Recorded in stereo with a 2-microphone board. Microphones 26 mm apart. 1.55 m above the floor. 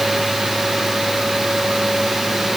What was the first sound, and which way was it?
Only background noise.